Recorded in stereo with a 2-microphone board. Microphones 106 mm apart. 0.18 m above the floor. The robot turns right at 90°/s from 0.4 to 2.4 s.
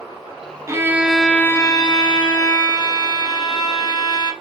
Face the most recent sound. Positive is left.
turn(degrees=115)